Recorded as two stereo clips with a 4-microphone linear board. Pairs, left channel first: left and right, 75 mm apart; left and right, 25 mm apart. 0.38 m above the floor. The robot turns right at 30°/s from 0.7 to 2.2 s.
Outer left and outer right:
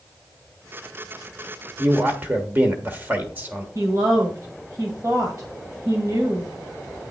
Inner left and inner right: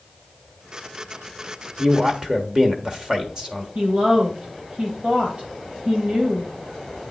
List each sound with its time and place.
1.8 s a man speaking: 25° right (ahead or behind), 1.3 m
3.8 s a woman speaking: 45° right (ahead or behind), 1.9 m